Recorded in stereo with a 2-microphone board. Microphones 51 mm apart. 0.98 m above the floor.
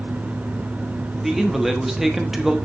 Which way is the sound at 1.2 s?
5° right (ahead or behind).